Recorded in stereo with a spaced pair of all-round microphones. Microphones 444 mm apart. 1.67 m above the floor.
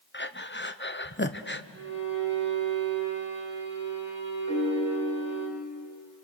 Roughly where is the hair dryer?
I don't hear a hair dryer.